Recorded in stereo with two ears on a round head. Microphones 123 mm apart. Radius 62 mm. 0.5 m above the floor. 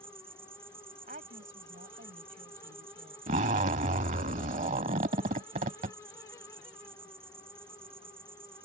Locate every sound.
0.0 s an insect: 15° right (ahead or behind)
1.1 s a woman speaking: 60° right (ahead or behind)
3.3 s a zipper: 50° right (ahead or behind)